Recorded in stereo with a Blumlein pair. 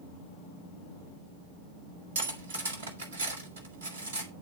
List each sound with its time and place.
2.1 s cutlery clinking: 60° right, 1.9 m